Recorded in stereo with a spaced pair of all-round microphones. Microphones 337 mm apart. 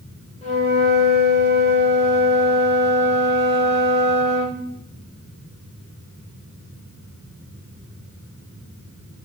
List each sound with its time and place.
0.4 s a flute: 20° left (ahead or behind), 0.8 m